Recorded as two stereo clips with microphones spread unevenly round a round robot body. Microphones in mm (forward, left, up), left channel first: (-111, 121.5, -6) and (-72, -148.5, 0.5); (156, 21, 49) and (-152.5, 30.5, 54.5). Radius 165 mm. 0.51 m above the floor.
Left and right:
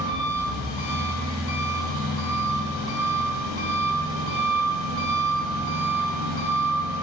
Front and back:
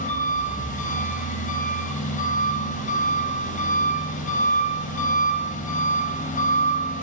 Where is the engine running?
65° left, 2.5 m.